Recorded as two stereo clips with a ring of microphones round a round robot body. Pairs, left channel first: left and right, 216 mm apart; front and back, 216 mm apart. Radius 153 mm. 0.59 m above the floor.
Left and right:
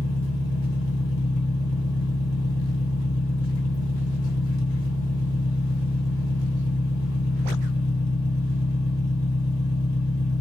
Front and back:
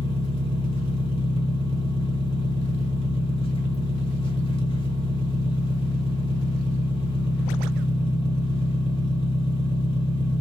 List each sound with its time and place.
0.0 s an engine running: 70° left, 1.0 m